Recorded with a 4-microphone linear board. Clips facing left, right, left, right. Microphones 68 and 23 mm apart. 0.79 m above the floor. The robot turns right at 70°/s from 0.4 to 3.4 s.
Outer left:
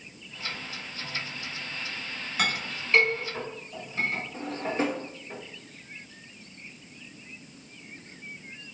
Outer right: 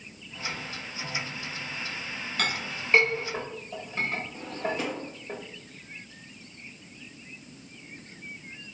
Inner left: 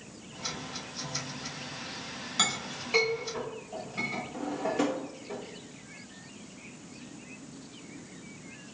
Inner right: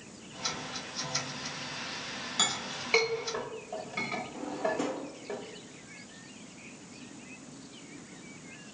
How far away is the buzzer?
I don't hear a buzzer.